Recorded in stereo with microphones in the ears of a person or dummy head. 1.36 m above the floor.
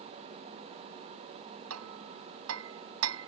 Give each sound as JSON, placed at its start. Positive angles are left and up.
{"t": 1.7, "sound": "hammering", "side_deg": -85}